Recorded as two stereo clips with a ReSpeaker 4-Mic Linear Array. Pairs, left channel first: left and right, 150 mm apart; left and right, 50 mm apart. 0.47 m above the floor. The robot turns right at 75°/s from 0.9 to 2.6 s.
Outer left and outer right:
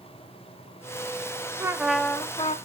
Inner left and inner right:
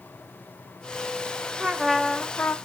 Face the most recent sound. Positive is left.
turn(degrees=50)